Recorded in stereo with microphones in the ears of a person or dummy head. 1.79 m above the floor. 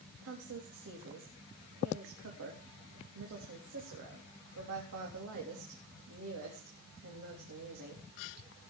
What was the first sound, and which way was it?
A woman speaking, 75° right (ahead or behind).